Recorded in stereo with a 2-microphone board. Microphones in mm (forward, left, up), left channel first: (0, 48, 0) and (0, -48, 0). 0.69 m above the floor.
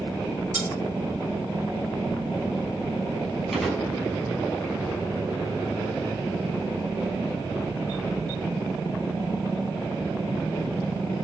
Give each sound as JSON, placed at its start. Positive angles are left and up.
{"t": 0.5, "sound": "cutlery clinking", "side_deg": -15, "distance_m": 4.0}
{"t": 3.5, "sound": "a gunshot", "side_deg": 0, "distance_m": 7.0}